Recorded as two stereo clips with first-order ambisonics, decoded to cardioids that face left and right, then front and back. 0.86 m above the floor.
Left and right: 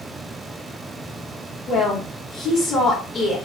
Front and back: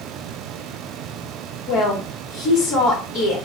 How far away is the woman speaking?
About 1.3 m.